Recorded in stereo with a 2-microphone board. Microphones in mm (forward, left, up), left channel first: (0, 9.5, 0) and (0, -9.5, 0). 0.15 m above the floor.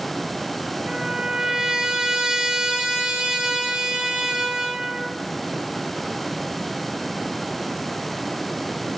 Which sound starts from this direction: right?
A trumpet, at 0.9 s.